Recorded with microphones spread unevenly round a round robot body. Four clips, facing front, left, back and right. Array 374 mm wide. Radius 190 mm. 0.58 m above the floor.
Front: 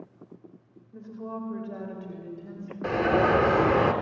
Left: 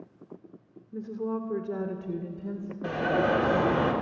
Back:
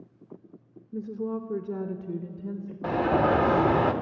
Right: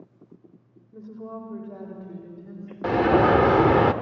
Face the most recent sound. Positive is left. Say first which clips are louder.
# right 7 dB, even
turn(degrees=-95)